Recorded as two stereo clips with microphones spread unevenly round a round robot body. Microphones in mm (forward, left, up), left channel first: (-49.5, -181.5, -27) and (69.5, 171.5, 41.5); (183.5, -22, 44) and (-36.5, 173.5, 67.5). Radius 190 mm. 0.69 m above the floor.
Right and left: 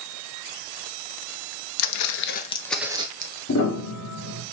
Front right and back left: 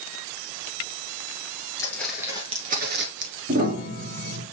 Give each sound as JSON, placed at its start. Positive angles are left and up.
{"t": 1.8, "sound": "footsteps", "azimuth_deg": -125, "distance_m": 0.8}
{"t": 3.5, "sound": "a piano", "azimuth_deg": -155, "distance_m": 1.4}